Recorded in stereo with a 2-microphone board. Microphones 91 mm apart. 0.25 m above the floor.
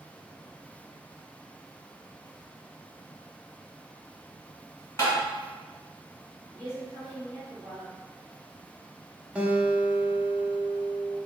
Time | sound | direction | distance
5.0 | tapping | 25° left (ahead or behind) | 1.6 m
6.5 | a woman speaking | 35° right (ahead or behind) | 1.8 m
9.3 | a guitar | 15° right (ahead or behind) | 0.5 m